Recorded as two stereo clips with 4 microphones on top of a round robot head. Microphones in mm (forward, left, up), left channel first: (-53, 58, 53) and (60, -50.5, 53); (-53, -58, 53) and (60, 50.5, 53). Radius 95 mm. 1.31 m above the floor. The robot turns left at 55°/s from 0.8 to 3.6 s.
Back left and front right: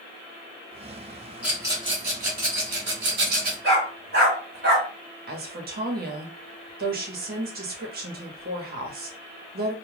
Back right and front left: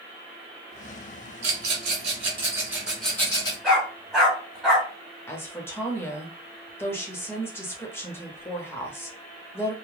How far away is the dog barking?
About 1.3 m.